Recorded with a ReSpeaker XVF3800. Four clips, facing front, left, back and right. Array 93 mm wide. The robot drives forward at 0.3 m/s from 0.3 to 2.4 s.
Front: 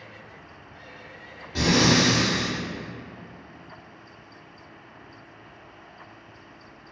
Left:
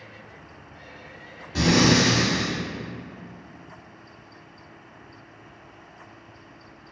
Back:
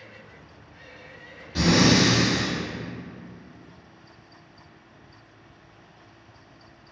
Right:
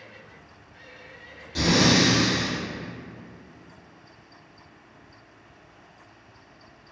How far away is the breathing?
About 0.9 m.